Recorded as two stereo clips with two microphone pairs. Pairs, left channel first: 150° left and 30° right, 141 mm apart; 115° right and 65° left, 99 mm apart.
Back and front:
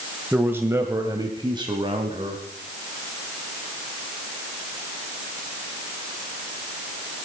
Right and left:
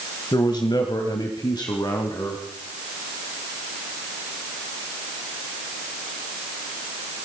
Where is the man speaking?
105° right, 1.2 m; by 2.5 s 75° right, 1.9 m.